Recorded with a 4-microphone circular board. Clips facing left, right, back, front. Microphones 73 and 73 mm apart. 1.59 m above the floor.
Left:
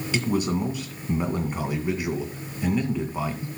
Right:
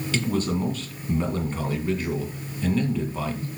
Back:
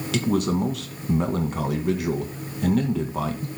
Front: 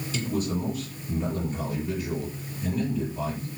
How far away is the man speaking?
About 2 m.